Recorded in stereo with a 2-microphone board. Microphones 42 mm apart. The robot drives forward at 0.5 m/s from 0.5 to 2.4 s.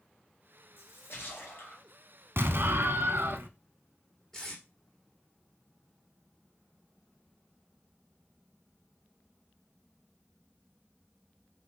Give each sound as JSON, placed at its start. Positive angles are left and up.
{"t": 0.8, "sound": "a splash", "side_deg": 55, "distance_m": 1.9}
{"t": 2.4, "sound": "an explosion", "side_deg": -60, "distance_m": 0.6}
{"t": 4.3, "sound": "tape being pulled", "side_deg": 10, "distance_m": 2.5}